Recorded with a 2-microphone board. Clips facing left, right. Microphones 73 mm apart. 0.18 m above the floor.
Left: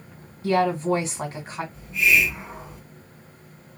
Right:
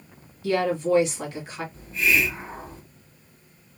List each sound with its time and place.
0.4 s a woman speaking: 30° left (ahead or behind), 1.5 m
1.7 s a hiss: 40° right (ahead or behind), 1.9 m